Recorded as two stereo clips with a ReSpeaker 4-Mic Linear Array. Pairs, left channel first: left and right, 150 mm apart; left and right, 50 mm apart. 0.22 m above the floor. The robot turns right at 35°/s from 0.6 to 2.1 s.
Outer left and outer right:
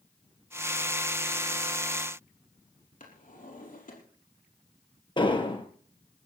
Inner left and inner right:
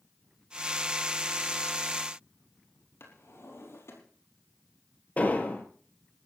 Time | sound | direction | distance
3.0 | a drawer | 65° left (ahead or behind) | 4 m
5.2 | an explosion | 35° left (ahead or behind) | 2 m